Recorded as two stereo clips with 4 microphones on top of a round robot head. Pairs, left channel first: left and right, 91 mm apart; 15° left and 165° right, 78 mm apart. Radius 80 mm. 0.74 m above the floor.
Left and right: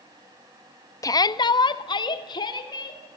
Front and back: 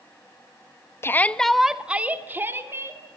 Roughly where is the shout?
Ahead left.